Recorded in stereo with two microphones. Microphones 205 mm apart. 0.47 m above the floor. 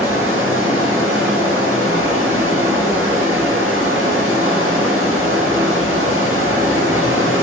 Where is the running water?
85° right, 0.8 m.